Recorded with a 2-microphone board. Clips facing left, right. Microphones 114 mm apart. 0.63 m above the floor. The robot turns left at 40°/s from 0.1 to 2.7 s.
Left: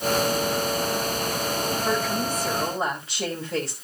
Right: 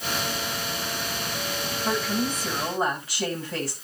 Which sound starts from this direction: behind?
A woman speaking, at 1.9 s.